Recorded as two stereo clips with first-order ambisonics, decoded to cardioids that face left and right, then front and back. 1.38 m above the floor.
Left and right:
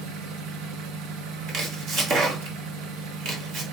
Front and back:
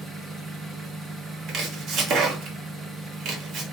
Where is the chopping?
135° right, 1.1 m.